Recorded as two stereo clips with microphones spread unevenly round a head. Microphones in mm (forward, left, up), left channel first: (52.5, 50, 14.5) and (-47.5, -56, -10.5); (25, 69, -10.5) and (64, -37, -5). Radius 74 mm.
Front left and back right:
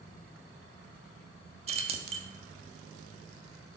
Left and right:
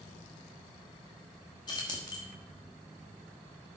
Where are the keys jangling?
175° left, 1.3 m.